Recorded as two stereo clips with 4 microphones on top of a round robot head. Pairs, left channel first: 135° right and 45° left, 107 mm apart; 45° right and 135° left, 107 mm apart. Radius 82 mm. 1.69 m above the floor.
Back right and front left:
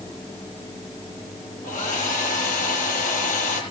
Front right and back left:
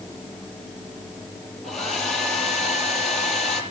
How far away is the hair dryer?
About 7 m.